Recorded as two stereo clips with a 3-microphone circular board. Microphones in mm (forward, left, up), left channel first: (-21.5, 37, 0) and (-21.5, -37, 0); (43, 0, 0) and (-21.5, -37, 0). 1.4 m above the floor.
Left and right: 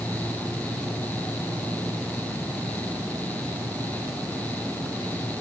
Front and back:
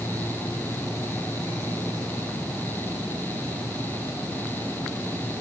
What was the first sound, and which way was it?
Only background noise.